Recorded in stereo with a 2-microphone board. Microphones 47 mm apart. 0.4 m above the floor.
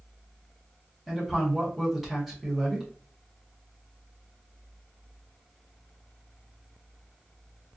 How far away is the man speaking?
About 1.6 m.